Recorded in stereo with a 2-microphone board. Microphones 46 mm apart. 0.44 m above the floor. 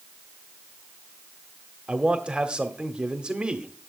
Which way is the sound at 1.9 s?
20° right (ahead or behind).